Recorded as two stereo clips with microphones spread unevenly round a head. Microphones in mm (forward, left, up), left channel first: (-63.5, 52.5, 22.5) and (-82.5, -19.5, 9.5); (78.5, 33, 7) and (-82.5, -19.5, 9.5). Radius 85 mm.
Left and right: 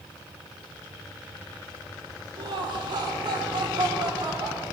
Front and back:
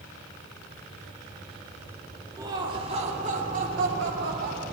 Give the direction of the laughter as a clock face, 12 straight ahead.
3 o'clock.